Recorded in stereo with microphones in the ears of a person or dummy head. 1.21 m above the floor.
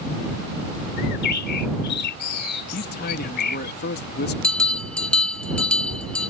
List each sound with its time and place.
1.0 s a bird: 55° left (ahead or behind)
2.7 s a man speaking: 45° left (ahead or behind)
4.4 s a bell: 5° left (ahead or behind)